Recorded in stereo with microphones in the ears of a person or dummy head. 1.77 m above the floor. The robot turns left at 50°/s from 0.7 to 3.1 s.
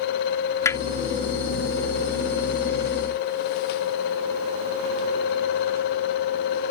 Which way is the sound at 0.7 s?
10° left (ahead or behind).